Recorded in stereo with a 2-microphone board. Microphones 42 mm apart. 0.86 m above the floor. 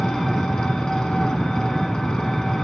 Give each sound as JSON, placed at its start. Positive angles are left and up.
{"t": 0.0, "sound": "an engine running", "side_deg": 15, "distance_m": 1.7}